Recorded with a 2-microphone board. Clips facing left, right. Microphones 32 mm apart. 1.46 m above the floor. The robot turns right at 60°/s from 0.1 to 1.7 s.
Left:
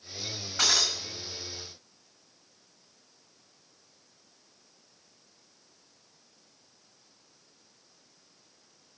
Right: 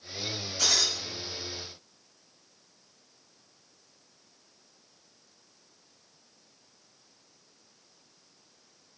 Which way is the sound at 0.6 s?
70° left (ahead or behind).